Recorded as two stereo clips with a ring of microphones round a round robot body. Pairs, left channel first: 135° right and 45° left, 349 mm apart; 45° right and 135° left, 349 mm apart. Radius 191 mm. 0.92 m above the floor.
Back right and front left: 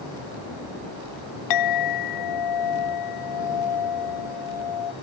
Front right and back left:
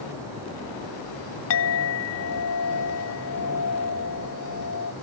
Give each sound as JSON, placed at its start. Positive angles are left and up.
{"t": 1.5, "sound": "a clink", "azimuth_deg": -100}